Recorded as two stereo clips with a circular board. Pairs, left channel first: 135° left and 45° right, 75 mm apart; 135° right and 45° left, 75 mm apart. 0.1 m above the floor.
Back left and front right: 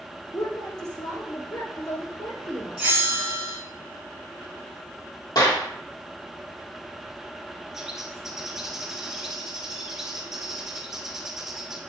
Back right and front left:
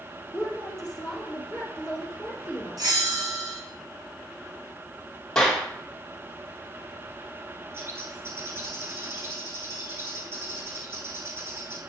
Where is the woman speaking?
140° left, 2.5 m.